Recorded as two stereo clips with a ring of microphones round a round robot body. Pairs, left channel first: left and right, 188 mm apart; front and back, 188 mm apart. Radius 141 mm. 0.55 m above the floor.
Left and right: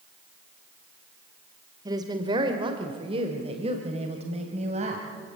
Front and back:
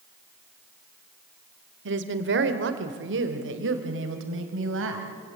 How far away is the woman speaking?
About 1.6 m.